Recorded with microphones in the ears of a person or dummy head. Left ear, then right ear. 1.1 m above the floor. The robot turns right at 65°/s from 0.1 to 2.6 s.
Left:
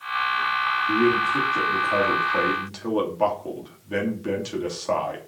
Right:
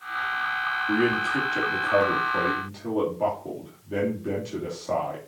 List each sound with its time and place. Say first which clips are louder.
0.9 s a man speaking: left 2 dB; 65° right, 3 m; by 5.2 s 45° left, 3 m